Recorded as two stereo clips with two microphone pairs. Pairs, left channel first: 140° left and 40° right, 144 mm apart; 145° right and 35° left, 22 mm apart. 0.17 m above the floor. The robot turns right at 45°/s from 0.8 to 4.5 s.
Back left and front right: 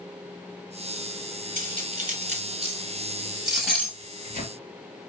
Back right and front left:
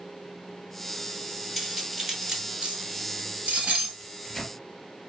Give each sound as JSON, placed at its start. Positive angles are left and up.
{"t": 1.6, "sound": "cutlery clinking", "azimuth_deg": -45, "distance_m": 2.0}
{"t": 4.0, "sound": "a microwave", "azimuth_deg": 120, "distance_m": 2.0}